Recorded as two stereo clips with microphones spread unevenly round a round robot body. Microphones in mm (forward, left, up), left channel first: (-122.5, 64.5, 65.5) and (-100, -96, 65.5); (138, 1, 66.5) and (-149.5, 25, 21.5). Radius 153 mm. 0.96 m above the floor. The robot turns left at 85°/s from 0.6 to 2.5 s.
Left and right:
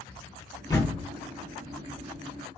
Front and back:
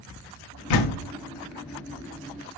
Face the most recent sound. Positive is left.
turn(degrees=-130)